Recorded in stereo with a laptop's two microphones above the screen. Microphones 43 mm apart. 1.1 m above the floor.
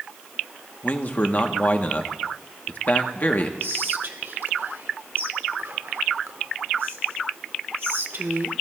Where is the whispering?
60° right (ahead or behind), 1.2 m.